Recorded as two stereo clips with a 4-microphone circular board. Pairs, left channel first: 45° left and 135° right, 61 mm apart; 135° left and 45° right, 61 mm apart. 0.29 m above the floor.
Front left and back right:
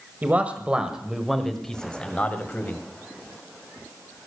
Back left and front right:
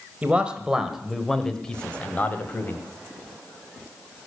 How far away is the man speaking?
About 1.5 m.